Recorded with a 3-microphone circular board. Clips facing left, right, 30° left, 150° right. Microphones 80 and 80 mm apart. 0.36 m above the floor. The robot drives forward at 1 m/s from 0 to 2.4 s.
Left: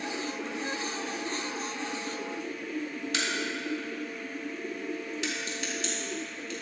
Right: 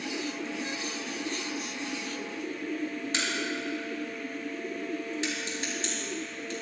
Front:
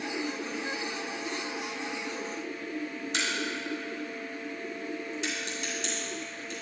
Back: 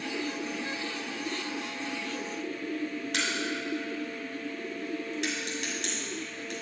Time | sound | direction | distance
3.1 | a crack | 145° right | 2 m